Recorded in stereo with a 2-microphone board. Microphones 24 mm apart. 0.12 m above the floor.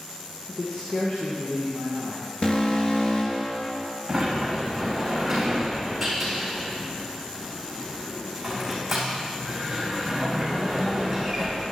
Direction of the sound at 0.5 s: 65° left (ahead or behind).